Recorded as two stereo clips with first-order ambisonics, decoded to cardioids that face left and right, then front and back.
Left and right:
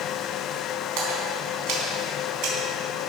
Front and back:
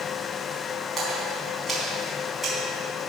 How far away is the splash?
About 3.5 m.